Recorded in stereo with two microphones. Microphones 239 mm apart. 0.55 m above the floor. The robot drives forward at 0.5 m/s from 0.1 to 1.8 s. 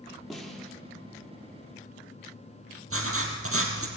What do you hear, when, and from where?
0.3 s a snare drum: centre (ahead or behind), 4.5 m
2.9 s writing: 70° right (ahead or behind), 3.5 m